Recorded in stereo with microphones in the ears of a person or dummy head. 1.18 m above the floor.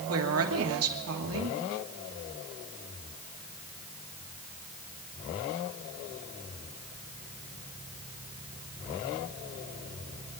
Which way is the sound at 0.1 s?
75° right (ahead or behind).